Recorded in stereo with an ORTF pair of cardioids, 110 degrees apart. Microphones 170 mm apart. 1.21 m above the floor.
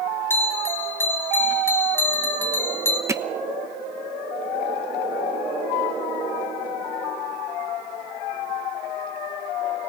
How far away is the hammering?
About 1.0 m.